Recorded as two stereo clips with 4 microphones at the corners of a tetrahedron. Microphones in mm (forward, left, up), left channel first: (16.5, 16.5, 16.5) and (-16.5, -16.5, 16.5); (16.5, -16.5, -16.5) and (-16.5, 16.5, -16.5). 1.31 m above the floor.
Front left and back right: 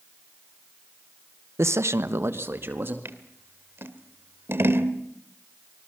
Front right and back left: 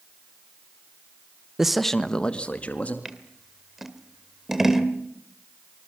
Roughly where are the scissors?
Behind right.